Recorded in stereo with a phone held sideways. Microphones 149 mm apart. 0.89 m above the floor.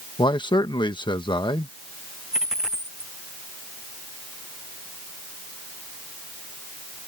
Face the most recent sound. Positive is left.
turn(degrees=-5)  # may be behind; listen again after turning